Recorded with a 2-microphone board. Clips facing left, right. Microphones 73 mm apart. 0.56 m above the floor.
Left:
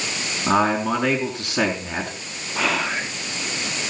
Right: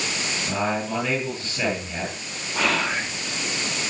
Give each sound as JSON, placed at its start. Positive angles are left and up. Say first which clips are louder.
{"t": 0.5, "sound": "a man speaking", "louder": "left 8 dB", "side_deg": 80, "distance_m": 5.0}
{"t": 2.5, "sound": "whispering", "louder": "even", "side_deg": 5, "distance_m": 0.9}